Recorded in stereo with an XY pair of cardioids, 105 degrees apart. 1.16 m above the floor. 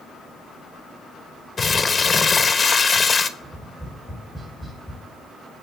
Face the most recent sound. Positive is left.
turn(degrees=0)